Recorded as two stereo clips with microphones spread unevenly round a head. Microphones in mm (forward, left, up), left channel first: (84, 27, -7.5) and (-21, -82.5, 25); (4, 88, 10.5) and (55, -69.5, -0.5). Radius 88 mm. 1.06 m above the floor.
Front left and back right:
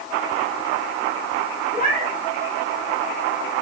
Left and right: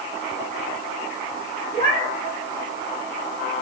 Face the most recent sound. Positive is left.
turn(degrees=170)